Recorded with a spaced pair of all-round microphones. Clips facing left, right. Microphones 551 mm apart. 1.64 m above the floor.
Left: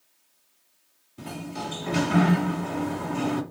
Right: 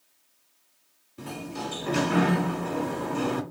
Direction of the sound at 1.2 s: 5° left (ahead or behind).